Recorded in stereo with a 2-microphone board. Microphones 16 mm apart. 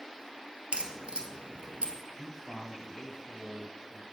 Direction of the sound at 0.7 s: 80° right.